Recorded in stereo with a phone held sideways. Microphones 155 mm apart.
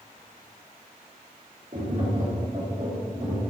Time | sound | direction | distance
1.7 | tapping | 50° right (ahead or behind) | 3 m